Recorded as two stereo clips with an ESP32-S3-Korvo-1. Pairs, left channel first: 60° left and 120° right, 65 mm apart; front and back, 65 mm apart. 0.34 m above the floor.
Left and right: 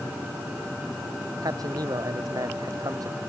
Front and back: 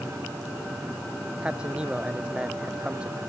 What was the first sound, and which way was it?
A man speaking, 105° right.